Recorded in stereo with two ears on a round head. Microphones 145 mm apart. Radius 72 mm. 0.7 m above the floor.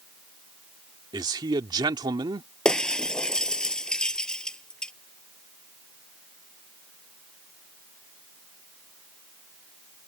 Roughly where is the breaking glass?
Centre.